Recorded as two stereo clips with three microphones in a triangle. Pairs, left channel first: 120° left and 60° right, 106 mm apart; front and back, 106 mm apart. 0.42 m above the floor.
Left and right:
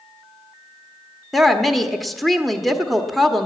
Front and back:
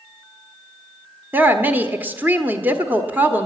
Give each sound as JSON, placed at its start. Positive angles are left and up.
{"t": 1.3, "sound": "a woman speaking", "azimuth_deg": -150, "distance_m": 1.1}